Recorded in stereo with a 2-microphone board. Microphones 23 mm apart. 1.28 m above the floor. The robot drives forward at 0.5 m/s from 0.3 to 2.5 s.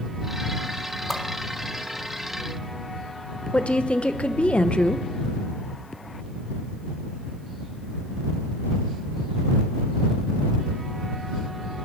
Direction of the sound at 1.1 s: 5° left (ahead or behind).